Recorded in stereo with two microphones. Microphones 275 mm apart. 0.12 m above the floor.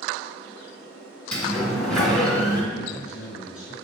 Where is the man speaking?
Centre (ahead or behind), 1.3 m.